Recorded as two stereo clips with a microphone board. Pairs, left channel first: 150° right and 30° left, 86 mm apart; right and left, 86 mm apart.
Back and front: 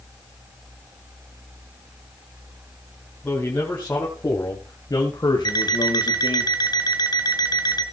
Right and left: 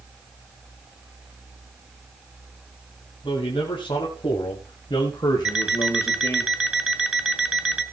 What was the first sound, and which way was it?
A man speaking, 80° right.